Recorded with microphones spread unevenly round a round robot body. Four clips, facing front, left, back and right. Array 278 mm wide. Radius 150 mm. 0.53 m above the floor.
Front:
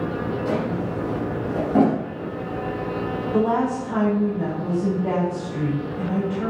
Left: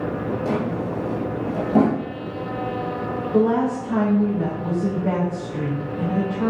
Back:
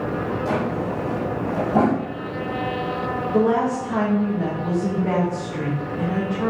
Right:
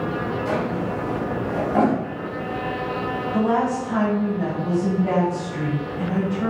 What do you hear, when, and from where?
0.5 s a drawer: 60° left, 3.5 m
3.3 s a woman speaking: 35° left, 5 m